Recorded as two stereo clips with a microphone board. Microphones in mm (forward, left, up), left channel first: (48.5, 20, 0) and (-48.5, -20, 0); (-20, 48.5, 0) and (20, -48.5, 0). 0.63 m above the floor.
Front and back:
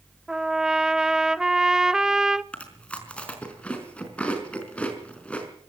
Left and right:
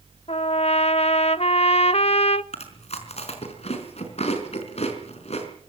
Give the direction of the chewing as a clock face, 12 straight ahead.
9 o'clock.